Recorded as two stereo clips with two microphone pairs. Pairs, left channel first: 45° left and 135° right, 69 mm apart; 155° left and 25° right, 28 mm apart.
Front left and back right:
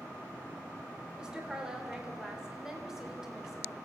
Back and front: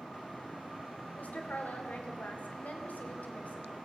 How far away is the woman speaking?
About 4 m.